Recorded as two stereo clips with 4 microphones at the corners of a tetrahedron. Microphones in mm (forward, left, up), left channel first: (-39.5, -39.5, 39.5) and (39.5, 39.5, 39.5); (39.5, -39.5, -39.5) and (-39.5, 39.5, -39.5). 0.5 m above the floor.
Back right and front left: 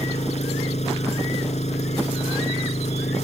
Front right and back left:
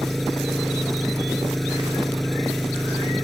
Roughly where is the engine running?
Behind right.